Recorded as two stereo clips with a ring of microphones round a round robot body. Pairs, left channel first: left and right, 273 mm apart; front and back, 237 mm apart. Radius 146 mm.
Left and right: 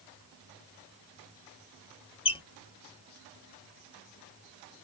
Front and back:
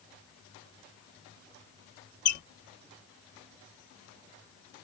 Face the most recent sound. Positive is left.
turn(degrees=25)